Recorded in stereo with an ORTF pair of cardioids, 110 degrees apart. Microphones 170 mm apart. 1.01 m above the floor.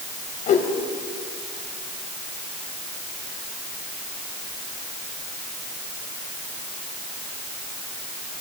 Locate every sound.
0.5 s a whoosh: 55° left, 2 m